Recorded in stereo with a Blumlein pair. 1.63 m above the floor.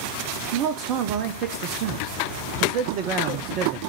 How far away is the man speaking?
About 0.8 m.